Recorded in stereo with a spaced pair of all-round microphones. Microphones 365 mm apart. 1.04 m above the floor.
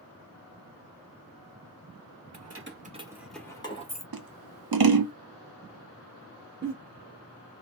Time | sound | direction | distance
2.3 | keys jangling | 50° right (ahead or behind) | 0.6 m
4.1 | scissors | 70° right (ahead or behind) | 0.5 m
6.6 | a giggle | 45° right (ahead or behind) | 1.0 m